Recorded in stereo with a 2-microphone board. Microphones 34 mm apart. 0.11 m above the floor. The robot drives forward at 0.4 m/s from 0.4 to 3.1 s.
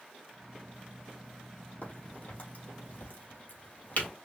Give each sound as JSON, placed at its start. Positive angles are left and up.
{"t": 1.8, "sound": "a crack", "side_deg": 60, "distance_m": 2.5}